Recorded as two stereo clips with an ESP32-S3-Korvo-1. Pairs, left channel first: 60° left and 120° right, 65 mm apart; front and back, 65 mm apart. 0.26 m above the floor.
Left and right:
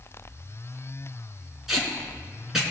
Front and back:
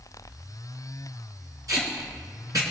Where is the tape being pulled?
155° left, 3 m.